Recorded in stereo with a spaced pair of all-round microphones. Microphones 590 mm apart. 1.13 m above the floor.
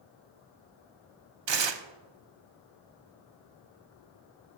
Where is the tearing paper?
50° right (ahead or behind), 0.5 m.